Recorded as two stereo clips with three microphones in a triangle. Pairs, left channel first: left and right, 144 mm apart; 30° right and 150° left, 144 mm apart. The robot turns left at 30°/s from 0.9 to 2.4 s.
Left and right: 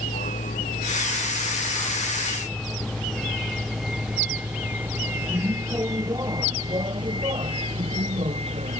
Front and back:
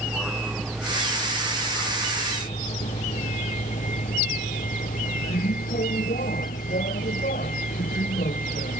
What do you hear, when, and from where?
0.0 s a vehicle: 70° left; by 8.8 s 50° right